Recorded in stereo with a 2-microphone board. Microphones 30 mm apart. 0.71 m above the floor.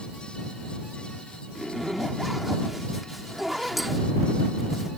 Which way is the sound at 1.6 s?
5° right (ahead or behind).